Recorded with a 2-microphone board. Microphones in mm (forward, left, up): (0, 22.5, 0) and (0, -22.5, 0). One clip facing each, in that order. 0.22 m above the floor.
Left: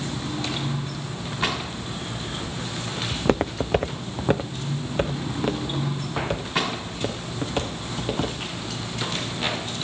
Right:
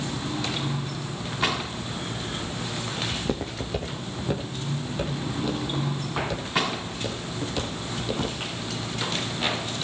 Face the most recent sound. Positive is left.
turn(degrees=35)  # may be behind; listen again after turning